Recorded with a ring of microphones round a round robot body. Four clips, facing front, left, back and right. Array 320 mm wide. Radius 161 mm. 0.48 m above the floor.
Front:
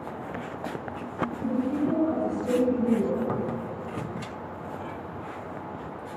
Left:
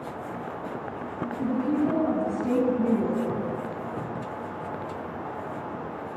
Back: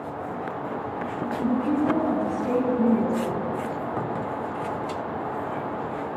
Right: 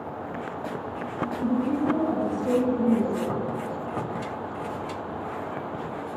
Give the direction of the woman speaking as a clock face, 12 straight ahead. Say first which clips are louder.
Even, back 4 dB; 7 o'clock.